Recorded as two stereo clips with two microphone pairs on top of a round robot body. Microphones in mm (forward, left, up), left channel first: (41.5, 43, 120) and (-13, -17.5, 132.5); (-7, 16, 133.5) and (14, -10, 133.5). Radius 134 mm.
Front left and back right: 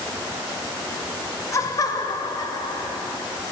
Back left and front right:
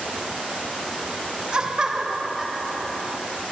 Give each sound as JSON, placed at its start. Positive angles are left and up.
{"t": 1.5, "sound": "laughter", "azimuth_deg": 10, "distance_m": 2.0}